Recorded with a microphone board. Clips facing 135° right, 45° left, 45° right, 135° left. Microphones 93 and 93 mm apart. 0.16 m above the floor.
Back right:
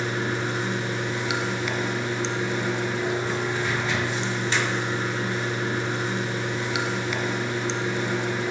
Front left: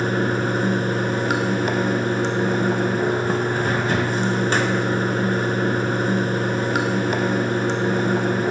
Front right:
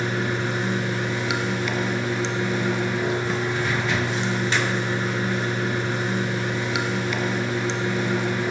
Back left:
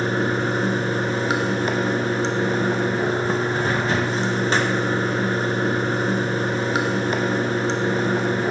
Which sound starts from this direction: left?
Running water, at 0.0 s.